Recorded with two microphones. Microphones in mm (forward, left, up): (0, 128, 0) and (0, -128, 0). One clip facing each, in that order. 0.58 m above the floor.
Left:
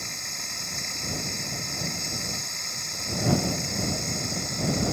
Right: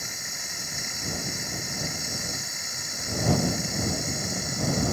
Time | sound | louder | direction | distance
0.0 | running water | even | 5° right (ahead or behind) | ?